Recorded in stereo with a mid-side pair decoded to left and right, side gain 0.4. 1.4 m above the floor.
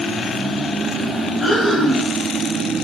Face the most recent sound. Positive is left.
turn(degrees=40)